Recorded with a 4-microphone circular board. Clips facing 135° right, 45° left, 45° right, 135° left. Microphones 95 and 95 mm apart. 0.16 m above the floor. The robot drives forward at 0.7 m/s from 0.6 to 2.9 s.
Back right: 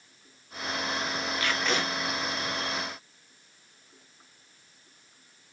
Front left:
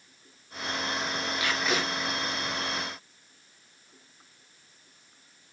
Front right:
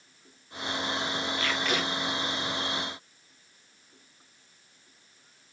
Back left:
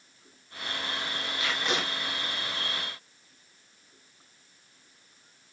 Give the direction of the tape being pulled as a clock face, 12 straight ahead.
9 o'clock.